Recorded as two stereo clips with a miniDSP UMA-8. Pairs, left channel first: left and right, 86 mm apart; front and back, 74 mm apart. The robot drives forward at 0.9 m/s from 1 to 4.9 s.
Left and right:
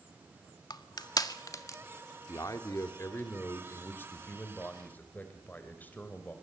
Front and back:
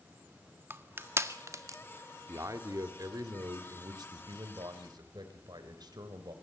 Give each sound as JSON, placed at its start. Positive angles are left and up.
{"t": 0.7, "sound": "crushing", "azimuth_deg": 125, "distance_m": 1.7}
{"t": 2.3, "sound": "a man speaking", "azimuth_deg": 135, "distance_m": 2.0}